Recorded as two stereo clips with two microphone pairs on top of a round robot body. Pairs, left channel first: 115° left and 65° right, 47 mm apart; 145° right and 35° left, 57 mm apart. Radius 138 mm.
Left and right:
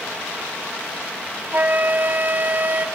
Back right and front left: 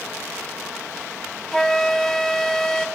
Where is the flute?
50° right, 0.7 m.